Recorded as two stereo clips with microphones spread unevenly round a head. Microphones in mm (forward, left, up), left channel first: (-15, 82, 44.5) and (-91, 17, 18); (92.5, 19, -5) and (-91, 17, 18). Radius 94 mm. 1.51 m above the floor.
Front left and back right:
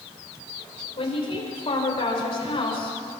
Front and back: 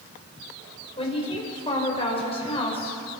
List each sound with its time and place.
1.0 s a woman speaking: 60° left, 5.5 m